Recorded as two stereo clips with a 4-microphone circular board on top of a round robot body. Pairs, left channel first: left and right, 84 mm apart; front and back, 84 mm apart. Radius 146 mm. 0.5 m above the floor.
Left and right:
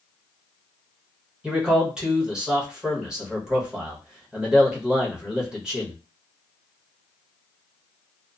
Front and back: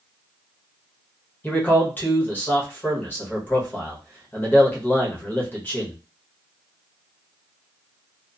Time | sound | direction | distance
1.4 | a man speaking | 25° right | 1.3 m